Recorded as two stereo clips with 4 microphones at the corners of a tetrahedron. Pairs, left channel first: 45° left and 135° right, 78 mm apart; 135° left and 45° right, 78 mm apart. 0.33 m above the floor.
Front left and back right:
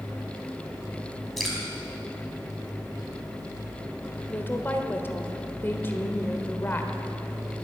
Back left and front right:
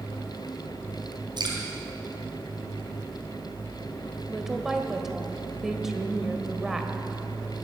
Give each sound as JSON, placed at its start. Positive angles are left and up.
{"t": 1.4, "sound": "dripping", "azimuth_deg": -45, "distance_m": 3.5}
{"t": 4.3, "sound": "a woman speaking", "azimuth_deg": 30, "distance_m": 1.4}